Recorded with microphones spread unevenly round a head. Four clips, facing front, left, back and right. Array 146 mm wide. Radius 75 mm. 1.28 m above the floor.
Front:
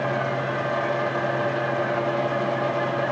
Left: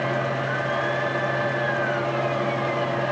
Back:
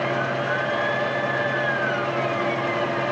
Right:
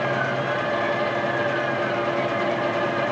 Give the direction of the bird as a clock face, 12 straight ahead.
I don't hear a bird.